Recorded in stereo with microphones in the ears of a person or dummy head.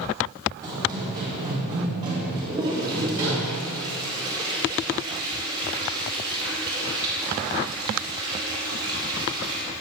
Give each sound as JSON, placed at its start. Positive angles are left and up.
{"t": 0.6, "sound": "running footsteps", "side_deg": -25, "distance_m": 3.0}
{"t": 2.4, "sound": "a toilet flushing", "side_deg": -25, "distance_m": 3.0}